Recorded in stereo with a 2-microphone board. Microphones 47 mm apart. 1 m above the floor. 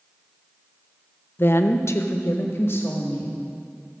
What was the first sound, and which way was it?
A woman speaking, 45° left (ahead or behind).